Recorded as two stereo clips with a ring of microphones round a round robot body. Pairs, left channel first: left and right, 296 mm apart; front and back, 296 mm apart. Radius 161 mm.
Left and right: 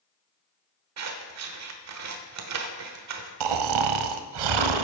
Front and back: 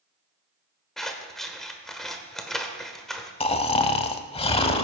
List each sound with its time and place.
1.0 s scissors: 90° right, 1.3 m
3.4 s snoring: 75° right, 0.8 m